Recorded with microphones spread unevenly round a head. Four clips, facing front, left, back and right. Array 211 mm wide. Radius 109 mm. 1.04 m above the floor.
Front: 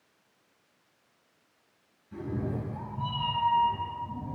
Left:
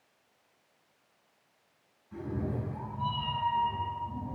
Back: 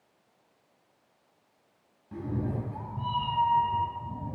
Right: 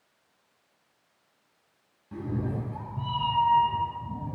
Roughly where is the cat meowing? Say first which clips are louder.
Right 3 dB, back 1 dB; behind right.